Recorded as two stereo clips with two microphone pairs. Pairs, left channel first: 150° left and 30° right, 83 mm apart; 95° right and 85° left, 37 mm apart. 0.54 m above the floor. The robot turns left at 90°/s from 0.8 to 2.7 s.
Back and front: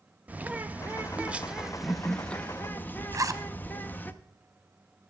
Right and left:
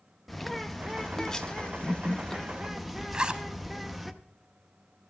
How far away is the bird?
About 0.6 m.